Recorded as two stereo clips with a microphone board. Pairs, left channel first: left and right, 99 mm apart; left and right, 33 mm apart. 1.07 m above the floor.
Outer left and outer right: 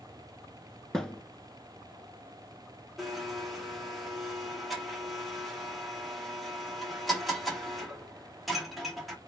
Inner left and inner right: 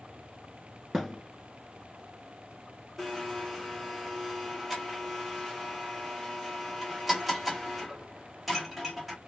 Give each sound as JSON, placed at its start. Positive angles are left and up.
{"t": 0.9, "sound": "a thud", "side_deg": 5, "distance_m": 1.1}
{"t": 3.0, "sound": "a blender", "side_deg": 0, "distance_m": 1.9}